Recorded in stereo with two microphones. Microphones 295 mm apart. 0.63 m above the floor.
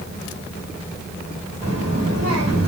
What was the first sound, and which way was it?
A child speaking, 55° right (ahead or behind).